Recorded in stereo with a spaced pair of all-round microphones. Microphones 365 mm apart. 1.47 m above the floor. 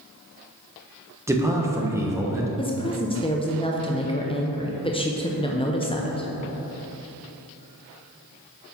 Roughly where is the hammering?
No hammering in this recording.